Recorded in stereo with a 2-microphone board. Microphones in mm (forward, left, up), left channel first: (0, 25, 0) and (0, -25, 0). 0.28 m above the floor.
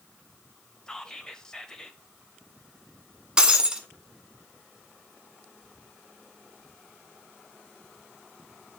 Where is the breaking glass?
20° right (ahead or behind), 1.0 m.